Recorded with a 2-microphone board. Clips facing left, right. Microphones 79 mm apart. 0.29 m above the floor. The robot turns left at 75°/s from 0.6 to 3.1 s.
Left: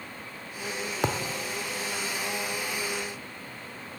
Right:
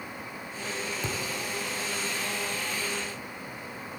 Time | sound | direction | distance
1.0 | a thud | 70° left (ahead or behind) | 1.3 m